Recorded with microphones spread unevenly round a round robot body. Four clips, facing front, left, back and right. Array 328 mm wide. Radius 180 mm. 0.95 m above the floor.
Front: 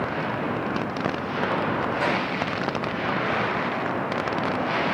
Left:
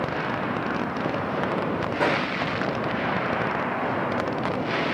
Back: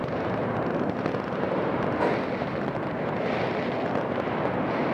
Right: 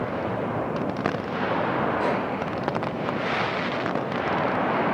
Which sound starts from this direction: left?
A microwave, at 2.0 s.